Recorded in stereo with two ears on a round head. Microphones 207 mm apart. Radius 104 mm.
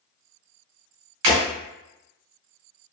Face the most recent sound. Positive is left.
turn(degrees=-75)  # may be behind; listen again after turning